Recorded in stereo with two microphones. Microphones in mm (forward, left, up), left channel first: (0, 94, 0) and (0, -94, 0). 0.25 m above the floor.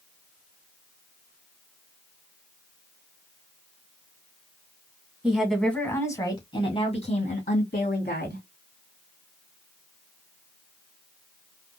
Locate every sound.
5.2 s a woman speaking: 5° right (ahead or behind), 1.5 m; by 8.4 s 55° left (ahead or behind), 2.5 m